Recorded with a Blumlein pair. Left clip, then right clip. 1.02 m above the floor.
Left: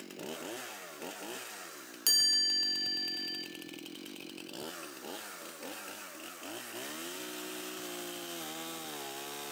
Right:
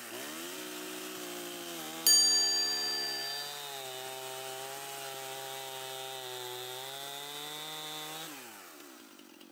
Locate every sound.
2.1 s a chime: 5° right, 1.1 m